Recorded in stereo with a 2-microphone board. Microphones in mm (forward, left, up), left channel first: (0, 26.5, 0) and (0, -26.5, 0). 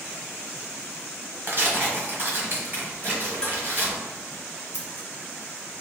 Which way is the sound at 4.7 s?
20° right (ahead or behind).